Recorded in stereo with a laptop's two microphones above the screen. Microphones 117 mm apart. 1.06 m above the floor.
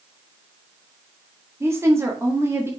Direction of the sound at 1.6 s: 20° right (ahead or behind).